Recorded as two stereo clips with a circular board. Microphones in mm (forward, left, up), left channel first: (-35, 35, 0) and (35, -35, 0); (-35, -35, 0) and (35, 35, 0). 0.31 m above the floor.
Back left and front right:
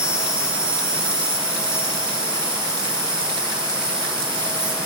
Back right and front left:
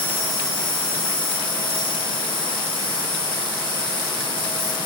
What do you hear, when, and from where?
0.0 s an insect: 125° right, 1.7 m